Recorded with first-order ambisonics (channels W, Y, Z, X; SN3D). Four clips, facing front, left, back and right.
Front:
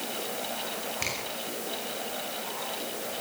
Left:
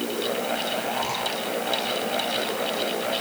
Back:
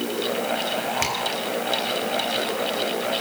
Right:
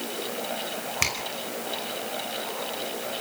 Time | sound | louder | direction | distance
1.0 | a finger snap | right 1 dB, back 4 dB | 110° right | 5 m